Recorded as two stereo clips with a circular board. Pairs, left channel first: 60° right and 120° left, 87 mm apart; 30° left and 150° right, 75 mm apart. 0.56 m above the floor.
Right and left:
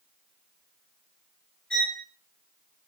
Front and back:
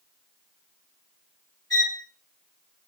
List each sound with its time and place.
1.7 s a violin: 5° left, 1.9 m